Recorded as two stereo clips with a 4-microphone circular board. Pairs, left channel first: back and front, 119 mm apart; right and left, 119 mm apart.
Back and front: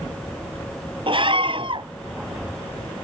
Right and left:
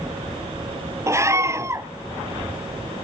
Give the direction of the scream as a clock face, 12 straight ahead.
11 o'clock.